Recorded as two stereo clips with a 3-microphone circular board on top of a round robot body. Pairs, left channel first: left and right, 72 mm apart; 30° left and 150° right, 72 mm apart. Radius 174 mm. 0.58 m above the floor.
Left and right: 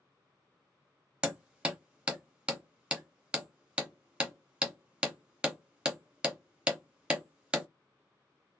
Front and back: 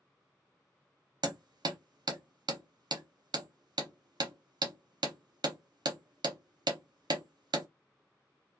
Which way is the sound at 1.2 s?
170° right.